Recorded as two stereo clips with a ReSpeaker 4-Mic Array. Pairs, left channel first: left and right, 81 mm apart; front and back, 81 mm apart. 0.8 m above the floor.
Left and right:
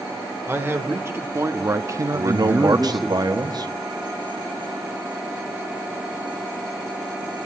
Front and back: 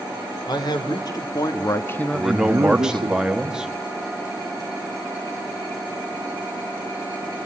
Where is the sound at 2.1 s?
100° right, 1.6 m.